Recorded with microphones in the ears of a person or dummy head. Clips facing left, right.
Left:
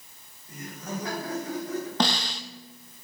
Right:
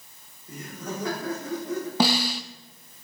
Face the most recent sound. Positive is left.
turn(degrees=-5)  # may be behind; listen again after turning